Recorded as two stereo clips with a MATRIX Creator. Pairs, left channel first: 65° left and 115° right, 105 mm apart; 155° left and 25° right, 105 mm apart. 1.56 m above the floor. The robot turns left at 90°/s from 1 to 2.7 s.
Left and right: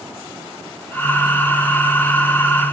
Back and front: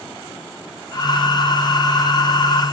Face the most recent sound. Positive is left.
No sound to turn to.